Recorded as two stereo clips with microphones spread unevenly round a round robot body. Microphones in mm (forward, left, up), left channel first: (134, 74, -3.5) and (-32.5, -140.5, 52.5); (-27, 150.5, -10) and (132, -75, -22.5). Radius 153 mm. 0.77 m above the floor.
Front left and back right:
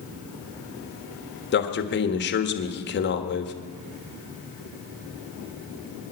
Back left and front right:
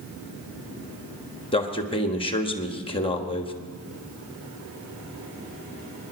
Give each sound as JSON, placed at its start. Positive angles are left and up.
{"t": 1.5, "sound": "a man speaking", "azimuth_deg": 55, "distance_m": 1.5}